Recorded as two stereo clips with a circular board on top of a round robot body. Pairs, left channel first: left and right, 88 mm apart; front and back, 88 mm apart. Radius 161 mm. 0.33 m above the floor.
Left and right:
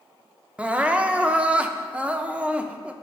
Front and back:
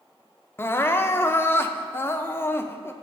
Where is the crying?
30° right, 0.7 m.